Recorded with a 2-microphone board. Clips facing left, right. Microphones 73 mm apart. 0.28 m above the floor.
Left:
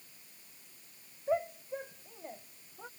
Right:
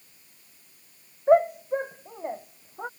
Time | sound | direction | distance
1.3 | a shout | 55° right (ahead or behind) | ?